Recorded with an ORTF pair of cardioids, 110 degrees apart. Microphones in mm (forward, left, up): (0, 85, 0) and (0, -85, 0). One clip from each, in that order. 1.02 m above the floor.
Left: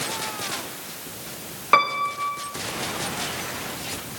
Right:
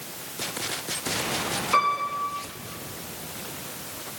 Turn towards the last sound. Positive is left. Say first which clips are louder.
# left 4 dB
turn(degrees=55)